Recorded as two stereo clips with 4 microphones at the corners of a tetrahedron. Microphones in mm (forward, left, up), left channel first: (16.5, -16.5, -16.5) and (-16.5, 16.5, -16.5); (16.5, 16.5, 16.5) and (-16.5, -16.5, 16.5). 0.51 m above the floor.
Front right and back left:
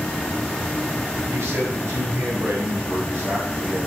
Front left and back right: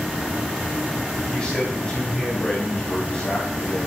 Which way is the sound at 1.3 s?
115° left.